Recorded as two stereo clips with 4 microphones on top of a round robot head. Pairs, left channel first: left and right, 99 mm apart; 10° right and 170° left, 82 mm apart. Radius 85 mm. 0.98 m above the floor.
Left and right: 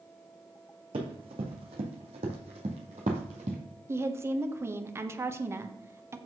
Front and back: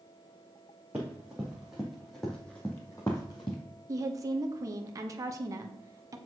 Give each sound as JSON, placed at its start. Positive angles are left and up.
{"t": 0.9, "sound": "running footsteps", "azimuth_deg": -115, "distance_m": 2.5}
{"t": 3.9, "sound": "a woman speaking", "azimuth_deg": -150, "distance_m": 1.1}